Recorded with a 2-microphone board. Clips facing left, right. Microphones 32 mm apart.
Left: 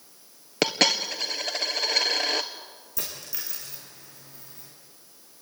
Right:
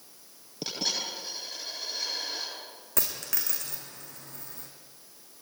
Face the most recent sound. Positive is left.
turn(degrees=-60)  # may be behind; listen again after turning